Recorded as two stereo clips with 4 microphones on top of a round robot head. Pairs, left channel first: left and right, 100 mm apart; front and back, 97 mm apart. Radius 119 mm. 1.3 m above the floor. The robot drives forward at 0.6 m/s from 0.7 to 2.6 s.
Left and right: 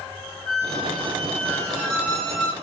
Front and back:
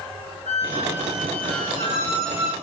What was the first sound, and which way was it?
A squeak, 5° left.